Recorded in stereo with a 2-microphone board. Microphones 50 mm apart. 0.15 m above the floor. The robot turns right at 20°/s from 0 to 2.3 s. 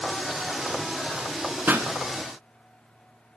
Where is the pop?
40° right (ahead or behind), 1.5 m.